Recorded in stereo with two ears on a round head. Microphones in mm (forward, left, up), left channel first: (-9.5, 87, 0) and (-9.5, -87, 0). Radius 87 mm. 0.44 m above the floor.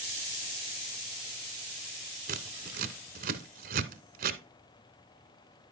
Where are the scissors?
50° right (ahead or behind), 0.9 m.